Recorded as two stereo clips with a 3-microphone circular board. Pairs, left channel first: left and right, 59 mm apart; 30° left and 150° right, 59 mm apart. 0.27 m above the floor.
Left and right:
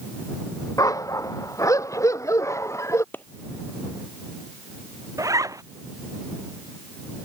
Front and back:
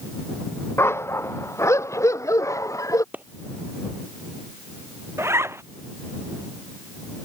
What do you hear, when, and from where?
0.8 s a dog barking: 75° left; by 3.0 s 55° left
3.1 s a clap: 145° left
5.2 s a zipper: 110° right